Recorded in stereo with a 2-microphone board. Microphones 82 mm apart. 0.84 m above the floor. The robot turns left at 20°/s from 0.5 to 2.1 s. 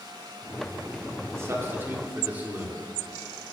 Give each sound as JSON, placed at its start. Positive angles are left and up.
{"t": 1.3, "sound": "a man speaking", "side_deg": -35, "distance_m": 1.7}